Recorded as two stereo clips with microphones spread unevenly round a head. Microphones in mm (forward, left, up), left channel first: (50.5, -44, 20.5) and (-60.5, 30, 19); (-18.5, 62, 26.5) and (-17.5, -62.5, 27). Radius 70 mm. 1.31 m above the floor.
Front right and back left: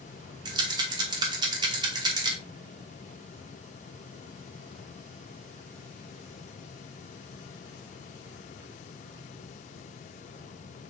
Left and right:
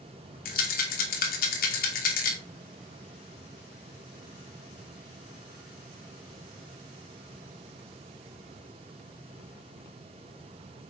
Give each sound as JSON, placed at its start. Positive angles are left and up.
{"t": 0.5, "sound": "a rattle", "azimuth_deg": 85, "distance_m": 2.5}